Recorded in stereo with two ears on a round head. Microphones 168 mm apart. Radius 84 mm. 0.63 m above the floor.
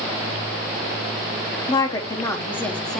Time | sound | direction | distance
1.7 | a woman speaking | 20° left (ahead or behind) | 1.0 m